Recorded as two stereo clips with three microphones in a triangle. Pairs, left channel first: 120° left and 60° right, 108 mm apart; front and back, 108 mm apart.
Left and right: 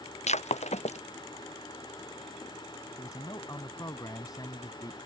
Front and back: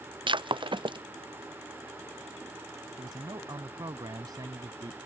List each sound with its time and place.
0.3 s breaking glass: 135° left
3.0 s a man speaking: 150° left